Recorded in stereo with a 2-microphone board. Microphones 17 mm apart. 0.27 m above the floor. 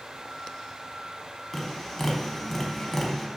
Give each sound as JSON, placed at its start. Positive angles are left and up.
{"t": 1.5, "sound": "tapping", "side_deg": 15, "distance_m": 0.5}